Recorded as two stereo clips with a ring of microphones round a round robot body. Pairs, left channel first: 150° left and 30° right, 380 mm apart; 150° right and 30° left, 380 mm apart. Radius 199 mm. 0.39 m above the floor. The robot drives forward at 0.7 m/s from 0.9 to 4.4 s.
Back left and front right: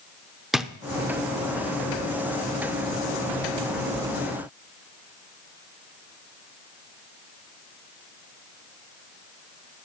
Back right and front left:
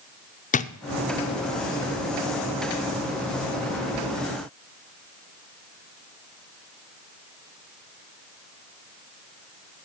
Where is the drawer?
120° right, 0.6 m.